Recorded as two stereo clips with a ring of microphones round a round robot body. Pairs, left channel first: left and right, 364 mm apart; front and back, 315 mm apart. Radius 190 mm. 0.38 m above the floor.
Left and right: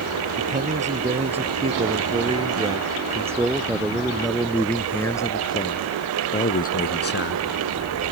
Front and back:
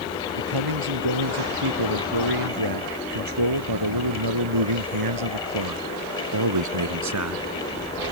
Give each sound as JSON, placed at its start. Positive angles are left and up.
{"t": 0.4, "sound": "a man speaking", "azimuth_deg": -160}